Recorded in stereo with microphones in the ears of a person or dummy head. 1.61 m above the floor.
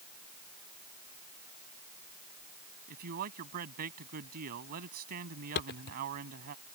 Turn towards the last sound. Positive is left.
turn(degrees=45)  # may be behind; listen again after turning